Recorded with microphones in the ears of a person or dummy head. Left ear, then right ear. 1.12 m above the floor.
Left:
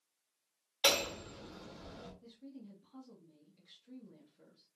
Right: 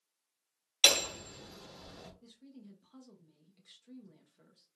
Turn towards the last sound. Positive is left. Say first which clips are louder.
# left 3 dB
turn(degrees=-60)  # may be behind; listen again after turning